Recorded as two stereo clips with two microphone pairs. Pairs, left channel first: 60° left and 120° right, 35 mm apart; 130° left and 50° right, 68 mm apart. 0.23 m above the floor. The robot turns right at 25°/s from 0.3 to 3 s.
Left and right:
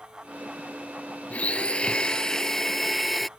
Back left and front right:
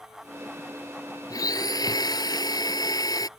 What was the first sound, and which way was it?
A blender, 105° left.